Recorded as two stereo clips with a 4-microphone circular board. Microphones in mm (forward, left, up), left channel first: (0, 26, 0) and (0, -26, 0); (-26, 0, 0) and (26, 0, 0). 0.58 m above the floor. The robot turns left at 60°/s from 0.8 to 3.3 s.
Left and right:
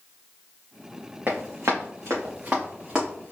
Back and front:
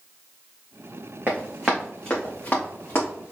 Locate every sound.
1.3 s running footsteps: 55° right, 1.8 m; by 3.3 s 175° left, 3 m